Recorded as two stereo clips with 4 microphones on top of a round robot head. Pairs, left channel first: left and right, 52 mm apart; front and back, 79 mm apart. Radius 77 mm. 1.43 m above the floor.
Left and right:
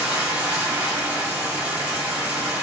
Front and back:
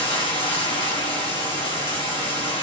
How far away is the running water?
About 1.8 m.